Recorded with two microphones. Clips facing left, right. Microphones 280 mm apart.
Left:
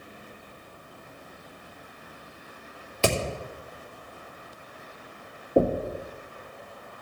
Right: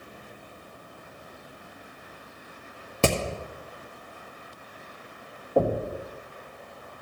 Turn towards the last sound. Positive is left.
turn(degrees=20)  # may be behind; listen again after turning